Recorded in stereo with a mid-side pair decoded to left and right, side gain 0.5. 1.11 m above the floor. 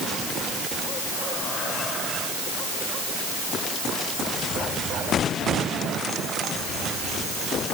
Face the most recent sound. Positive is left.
No sound to turn to.